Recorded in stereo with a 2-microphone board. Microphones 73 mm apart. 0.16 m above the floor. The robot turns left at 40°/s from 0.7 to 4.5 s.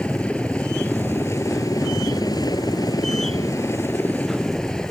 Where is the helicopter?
165° left; by 4.9 s 10° left.